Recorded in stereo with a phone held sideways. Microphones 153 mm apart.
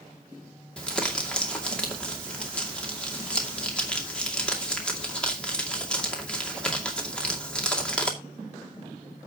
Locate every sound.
0.8 s crumpling: 5° left (ahead or behind), 2.5 m